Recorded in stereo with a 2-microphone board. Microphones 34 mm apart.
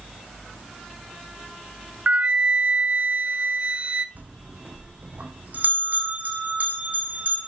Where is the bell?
55° right (ahead or behind), 1.9 m.